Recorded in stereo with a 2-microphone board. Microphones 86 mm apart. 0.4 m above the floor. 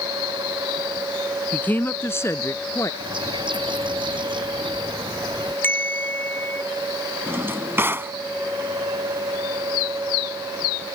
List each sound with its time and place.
1.5 s a woman speaking: 20° left (ahead or behind); by 2.9 s 35° left (ahead or behind)
3.0 s a bird: 65° right (ahead or behind)
5.6 s a bell: 25° left (ahead or behind)
7.3 s a drawer: 25° right (ahead or behind)